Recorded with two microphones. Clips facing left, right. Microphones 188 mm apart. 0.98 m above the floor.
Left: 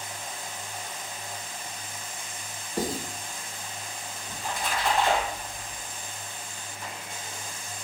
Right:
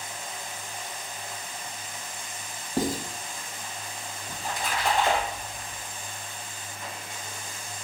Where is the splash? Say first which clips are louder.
Even; 30° right (ahead or behind), 4 m.